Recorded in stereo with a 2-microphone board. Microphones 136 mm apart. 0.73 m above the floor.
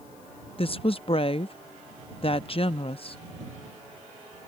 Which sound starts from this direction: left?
A woman speaking, at 0.6 s.